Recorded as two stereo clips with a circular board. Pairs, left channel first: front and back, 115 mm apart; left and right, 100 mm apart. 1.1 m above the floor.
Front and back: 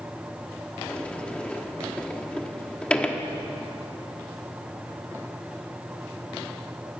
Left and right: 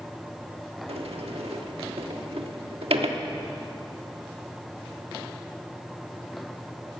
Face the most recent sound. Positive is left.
turn(degrees=-80)